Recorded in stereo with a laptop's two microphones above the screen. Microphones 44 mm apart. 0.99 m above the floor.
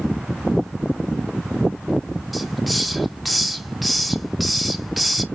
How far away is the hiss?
About 0.6 m.